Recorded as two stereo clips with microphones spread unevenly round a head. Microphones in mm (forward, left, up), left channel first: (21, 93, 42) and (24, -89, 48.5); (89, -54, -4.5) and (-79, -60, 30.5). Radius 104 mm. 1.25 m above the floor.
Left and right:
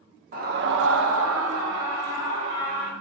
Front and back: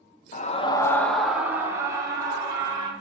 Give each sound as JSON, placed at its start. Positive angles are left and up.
{"t": 0.3, "sound": "a scream", "azimuth_deg": -45, "distance_m": 0.8}